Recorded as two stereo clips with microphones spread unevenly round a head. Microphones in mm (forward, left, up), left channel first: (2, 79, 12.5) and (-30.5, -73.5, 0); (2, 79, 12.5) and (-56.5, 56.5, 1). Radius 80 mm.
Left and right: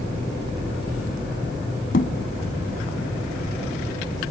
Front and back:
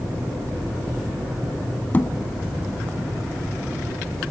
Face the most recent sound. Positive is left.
turn(degrees=65)